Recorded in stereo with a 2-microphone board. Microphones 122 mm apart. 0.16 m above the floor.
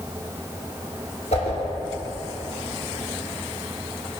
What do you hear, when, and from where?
1.3 s a whoosh: 70° left (ahead or behind), 0.8 m